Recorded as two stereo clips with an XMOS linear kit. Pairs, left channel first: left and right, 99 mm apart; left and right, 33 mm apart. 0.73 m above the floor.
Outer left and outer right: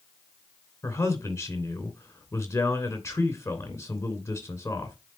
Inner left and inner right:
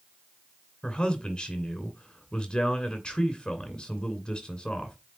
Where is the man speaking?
30° left (ahead or behind), 2.5 m.